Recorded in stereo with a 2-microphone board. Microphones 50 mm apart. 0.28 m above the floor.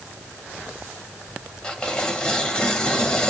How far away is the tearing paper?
About 1.6 m.